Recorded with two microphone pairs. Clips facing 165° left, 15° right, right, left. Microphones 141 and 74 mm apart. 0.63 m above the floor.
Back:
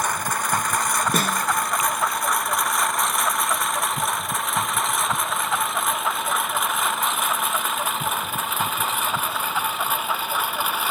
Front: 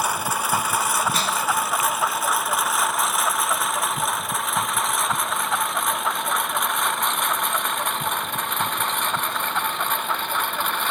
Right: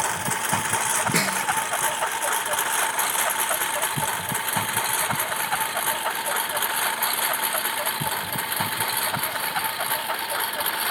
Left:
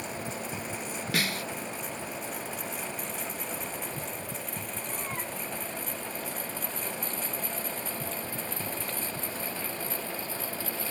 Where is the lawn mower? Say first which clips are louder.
Front 1 dB, right 10 dB; 100° right; by 10.9 s 110° right.